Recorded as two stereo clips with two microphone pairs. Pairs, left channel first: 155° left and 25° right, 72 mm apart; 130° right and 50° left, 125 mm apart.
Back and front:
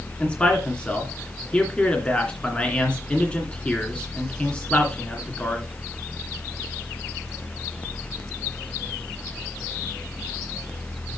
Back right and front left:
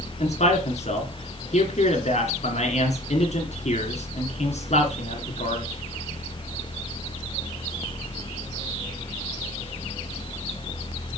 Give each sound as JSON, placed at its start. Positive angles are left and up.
{"t": 0.2, "sound": "a man speaking", "azimuth_deg": -135, "distance_m": 2.5}